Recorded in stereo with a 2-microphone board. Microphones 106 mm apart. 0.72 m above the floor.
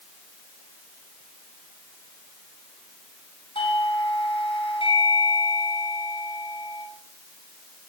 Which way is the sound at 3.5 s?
55° left (ahead or behind).